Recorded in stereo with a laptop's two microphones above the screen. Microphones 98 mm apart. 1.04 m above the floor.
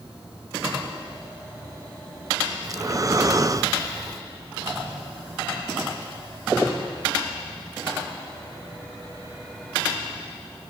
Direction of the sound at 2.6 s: 35° right (ahead or behind).